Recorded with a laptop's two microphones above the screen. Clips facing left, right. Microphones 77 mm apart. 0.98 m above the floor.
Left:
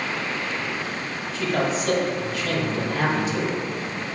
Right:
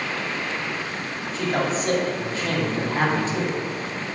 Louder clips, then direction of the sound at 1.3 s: Even; 30° right (ahead or behind).